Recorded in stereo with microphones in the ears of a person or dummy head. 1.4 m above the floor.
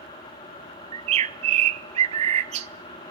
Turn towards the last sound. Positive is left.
turn(degrees=-35)  # may be behind; listen again after turning